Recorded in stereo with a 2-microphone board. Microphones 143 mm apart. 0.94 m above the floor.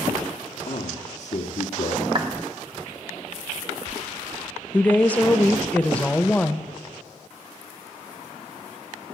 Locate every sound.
0.7 s a man speaking: 55° left (ahead or behind), 1.4 m
2.1 s a clap: 35° right (ahead or behind), 1.3 m
4.7 s a woman speaking: 10° left (ahead or behind), 0.8 m